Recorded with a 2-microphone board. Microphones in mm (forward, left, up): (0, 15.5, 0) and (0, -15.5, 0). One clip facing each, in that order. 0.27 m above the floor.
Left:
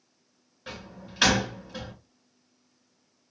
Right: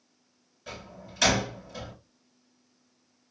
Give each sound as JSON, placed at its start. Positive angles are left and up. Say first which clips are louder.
{"t": 0.7, "sound": "a door slam", "louder": "left 1 dB", "side_deg": 30, "distance_m": 1.9}